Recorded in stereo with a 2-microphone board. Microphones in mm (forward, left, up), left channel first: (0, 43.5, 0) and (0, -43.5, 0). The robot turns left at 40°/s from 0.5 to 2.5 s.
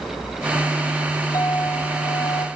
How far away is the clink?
About 2.5 m.